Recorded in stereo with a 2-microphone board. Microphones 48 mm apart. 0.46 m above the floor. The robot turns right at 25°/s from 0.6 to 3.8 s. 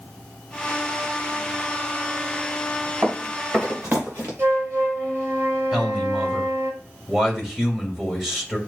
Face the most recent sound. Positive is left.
turn(degrees=-10)  # may be behind; listen again after turning